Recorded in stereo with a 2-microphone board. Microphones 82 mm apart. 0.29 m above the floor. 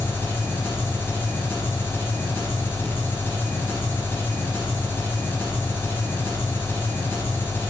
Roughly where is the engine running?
Left.